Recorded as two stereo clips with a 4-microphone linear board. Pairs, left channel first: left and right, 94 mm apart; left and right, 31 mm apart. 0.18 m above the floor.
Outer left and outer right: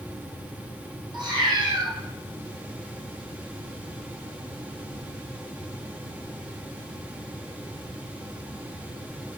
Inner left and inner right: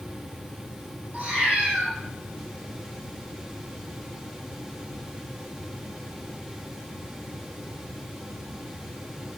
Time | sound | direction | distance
1.1 | a cat meowing | 50° right (ahead or behind) | 3.5 m